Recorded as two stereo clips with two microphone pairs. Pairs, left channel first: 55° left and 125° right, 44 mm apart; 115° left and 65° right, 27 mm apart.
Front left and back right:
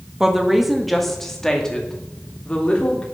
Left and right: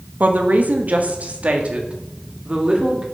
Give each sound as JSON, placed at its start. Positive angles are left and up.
{"t": 0.2, "sound": "a woman speaking", "azimuth_deg": -50, "distance_m": 1.9}